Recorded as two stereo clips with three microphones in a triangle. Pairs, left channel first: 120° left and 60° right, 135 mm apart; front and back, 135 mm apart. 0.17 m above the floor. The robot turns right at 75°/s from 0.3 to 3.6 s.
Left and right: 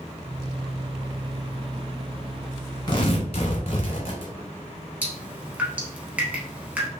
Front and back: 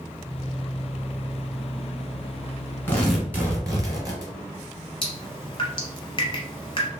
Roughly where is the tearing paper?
Left.